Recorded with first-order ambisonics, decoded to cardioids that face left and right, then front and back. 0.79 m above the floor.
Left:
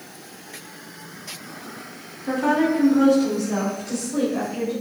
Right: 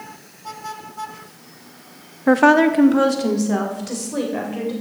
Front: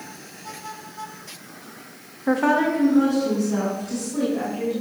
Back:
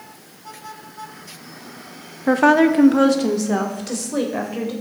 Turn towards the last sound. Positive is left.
turn(degrees=-160)